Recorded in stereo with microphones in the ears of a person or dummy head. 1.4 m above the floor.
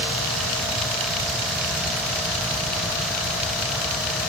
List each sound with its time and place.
Only background noise.